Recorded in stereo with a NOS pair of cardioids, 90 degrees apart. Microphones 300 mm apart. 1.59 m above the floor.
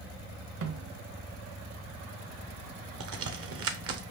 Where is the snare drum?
50° right, 1.1 m.